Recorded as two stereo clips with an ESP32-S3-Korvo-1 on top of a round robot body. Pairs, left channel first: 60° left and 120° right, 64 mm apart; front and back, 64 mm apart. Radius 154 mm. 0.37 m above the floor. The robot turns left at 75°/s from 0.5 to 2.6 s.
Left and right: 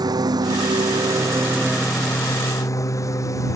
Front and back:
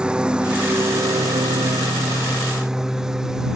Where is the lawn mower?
105° right; by 3.6 s 100° left.